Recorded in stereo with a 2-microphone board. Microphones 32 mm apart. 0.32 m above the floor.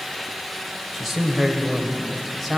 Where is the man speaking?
Centre (ahead or behind), 1.5 m.